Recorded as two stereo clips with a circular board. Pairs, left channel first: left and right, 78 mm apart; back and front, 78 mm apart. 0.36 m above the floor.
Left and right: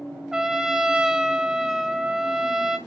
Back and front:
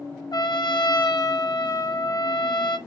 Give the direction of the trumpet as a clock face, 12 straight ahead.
6 o'clock.